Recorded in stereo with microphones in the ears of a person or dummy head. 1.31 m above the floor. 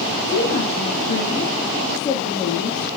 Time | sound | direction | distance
0.1 | a woman speaking | 25° left (ahead or behind) | 2 m